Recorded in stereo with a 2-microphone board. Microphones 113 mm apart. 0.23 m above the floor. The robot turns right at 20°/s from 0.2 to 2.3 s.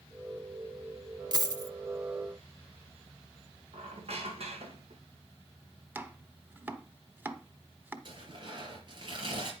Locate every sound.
1.3 s a dropped coin: 40° right (ahead or behind), 0.9 m; by 1.7 s 30° right (ahead or behind), 0.9 m
3.7 s a squeak: 65° right (ahead or behind), 2 m
6.0 s chopping: 15° right (ahead or behind), 1.0 m
8.1 s tearing paper: 45° right (ahead or behind), 4 m